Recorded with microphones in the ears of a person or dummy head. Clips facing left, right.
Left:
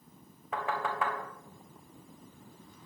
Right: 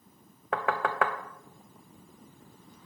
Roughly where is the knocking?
Right.